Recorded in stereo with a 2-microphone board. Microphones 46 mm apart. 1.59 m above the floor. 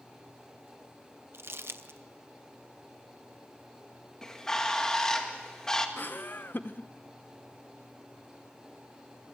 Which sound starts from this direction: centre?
A bird, at 4.2 s.